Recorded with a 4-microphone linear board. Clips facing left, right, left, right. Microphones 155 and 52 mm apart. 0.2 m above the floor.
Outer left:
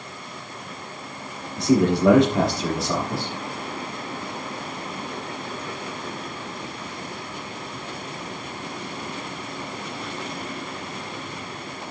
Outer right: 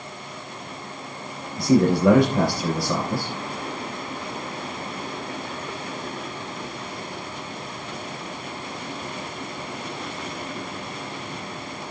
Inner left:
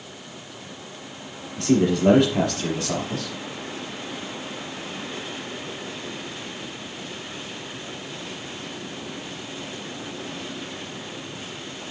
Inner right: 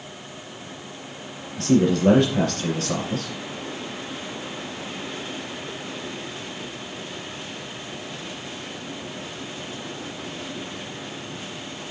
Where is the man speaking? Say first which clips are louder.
Outer right 1 dB, inner right 1 dB; 20° left (ahead or behind), 4.5 m.